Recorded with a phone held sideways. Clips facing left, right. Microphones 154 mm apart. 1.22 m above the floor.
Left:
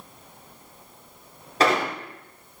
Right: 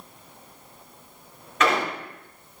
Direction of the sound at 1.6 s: 35° left (ahead or behind).